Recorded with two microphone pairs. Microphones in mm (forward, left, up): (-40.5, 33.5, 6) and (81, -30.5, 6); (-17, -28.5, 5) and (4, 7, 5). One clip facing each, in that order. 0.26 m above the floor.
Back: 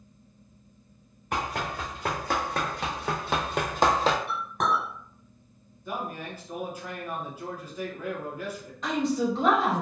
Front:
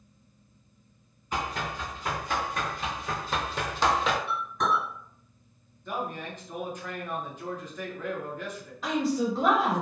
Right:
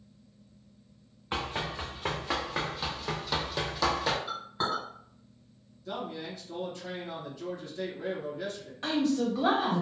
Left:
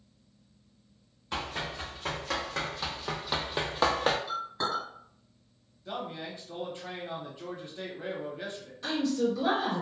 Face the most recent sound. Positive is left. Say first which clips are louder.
# back 1 dB, right 1 dB
turn(degrees=-110)